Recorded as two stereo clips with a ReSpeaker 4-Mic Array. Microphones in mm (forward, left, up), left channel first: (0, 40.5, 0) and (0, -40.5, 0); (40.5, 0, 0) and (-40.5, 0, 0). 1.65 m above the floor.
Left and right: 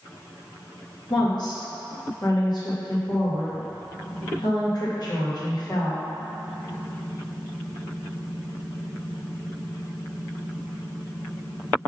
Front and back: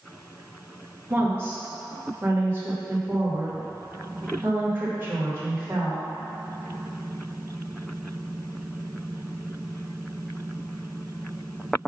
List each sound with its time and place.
1.1 s a woman speaking: 120° left, 2.5 m